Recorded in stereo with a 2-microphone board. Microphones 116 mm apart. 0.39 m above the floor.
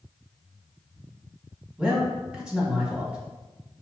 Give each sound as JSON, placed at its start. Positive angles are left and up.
{"t": 1.8, "sound": "a man speaking", "side_deg": -10, "distance_m": 1.0}